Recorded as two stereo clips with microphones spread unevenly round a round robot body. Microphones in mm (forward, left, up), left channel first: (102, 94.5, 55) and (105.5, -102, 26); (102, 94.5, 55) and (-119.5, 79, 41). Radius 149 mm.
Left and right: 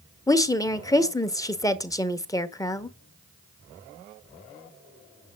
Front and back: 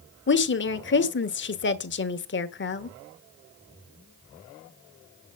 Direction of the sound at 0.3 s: 15° left.